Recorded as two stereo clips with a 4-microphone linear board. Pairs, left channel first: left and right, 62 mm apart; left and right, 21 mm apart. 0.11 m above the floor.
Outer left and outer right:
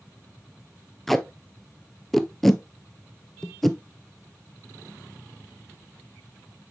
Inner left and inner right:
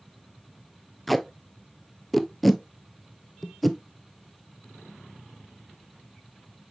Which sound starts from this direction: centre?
Tape being pulled, at 1.1 s.